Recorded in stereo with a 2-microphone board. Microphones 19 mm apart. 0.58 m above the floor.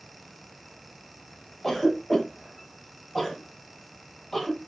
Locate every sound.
1.6 s a cough: 25° left (ahead or behind), 0.9 m